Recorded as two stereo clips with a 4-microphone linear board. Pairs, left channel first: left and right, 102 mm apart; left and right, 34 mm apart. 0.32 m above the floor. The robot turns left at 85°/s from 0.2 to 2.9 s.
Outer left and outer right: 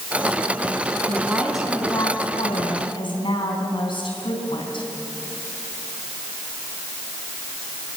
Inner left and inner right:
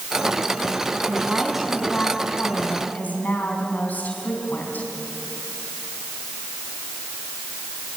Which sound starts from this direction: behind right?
A woman speaking, at 1.1 s.